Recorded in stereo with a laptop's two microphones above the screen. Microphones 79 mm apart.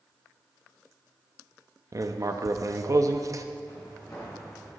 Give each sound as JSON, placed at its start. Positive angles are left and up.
{"t": 1.9, "sound": "writing", "side_deg": -45, "distance_m": 0.5}
{"t": 3.7, "sound": "footsteps", "side_deg": 35, "distance_m": 5.0}